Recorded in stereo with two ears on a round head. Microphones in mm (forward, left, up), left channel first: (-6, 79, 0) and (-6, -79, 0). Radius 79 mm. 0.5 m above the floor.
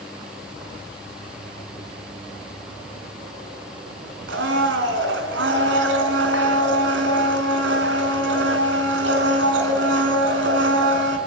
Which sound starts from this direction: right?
A blender, at 4.3 s.